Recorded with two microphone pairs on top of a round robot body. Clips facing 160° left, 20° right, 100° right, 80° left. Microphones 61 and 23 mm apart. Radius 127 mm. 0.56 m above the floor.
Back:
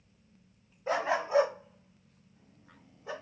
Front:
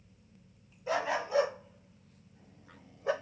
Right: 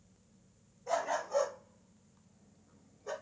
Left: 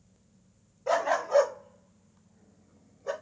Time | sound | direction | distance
0.9 | a dog barking | 110° left | 0.9 m